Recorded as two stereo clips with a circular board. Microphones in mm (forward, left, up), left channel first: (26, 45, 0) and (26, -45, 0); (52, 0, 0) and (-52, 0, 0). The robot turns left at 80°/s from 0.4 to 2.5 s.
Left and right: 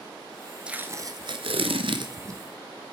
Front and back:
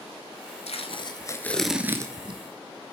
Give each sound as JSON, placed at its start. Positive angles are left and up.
{"t": 0.7, "sound": "tape being pulled", "azimuth_deg": -10, "distance_m": 0.7}